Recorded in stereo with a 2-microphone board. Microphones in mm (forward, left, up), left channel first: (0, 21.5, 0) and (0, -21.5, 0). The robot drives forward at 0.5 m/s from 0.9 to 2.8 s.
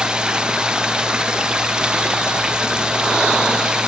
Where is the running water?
20° right (ahead or behind).